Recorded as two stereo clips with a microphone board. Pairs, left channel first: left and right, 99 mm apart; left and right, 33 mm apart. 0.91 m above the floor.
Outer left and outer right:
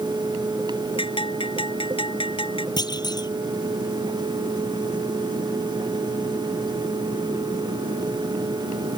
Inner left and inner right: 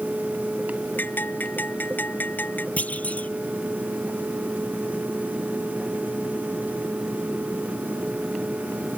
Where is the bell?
70° left (ahead or behind).